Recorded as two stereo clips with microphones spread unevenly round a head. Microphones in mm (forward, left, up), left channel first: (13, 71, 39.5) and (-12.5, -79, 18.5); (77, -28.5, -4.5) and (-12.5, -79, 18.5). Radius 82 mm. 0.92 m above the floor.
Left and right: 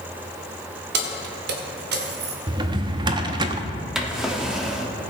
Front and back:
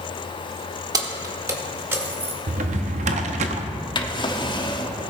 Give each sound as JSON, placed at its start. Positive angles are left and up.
{"t": 0.9, "sound": "keys jangling", "azimuth_deg": -100, "distance_m": 1.5}
{"t": 2.5, "sound": "a drawer", "azimuth_deg": -165, "distance_m": 0.7}
{"t": 4.0, "sound": "a drawer", "azimuth_deg": -10, "distance_m": 1.1}